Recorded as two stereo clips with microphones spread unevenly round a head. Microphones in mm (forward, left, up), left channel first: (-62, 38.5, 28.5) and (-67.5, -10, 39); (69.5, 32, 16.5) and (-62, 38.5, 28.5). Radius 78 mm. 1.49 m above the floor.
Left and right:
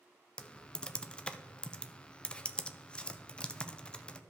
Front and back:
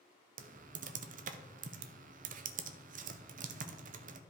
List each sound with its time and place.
0.4 s typing on a keyboard: 160° left, 0.6 m